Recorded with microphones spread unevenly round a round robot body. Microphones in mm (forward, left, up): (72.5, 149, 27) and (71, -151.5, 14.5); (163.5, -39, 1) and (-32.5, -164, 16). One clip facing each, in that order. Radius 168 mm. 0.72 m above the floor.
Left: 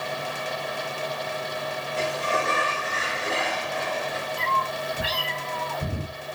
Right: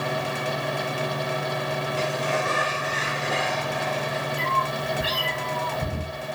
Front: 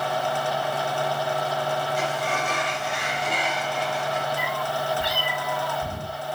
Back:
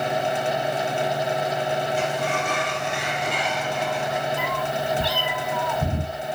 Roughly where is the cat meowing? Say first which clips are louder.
Right 2 dB, back 2 dB; behind.